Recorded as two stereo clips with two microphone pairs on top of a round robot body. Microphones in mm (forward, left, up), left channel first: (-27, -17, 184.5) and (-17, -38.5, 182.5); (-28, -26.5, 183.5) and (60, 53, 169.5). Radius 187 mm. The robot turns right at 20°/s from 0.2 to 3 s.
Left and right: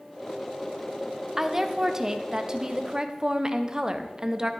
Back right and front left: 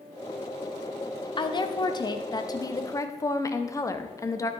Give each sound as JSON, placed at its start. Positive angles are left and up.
{"t": 1.4, "sound": "a woman speaking", "azimuth_deg": -115, "distance_m": 0.8}